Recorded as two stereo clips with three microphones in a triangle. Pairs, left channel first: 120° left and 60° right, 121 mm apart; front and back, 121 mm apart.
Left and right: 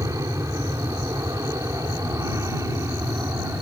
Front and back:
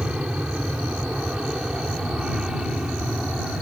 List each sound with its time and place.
0.0 s an aircraft: 100° right